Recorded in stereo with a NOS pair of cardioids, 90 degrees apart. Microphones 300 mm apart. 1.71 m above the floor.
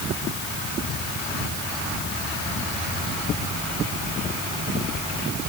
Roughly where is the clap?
No clap in this recording.